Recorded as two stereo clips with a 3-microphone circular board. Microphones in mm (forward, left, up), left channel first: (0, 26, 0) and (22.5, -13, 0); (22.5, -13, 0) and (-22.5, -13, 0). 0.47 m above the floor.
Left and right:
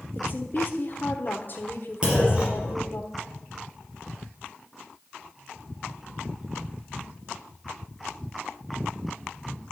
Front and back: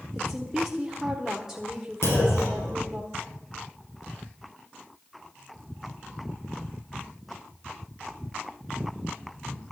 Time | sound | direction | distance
0.1 | a woman speaking | 105° left | 1.3 m
2.0 | a clunk | 10° left | 4.5 m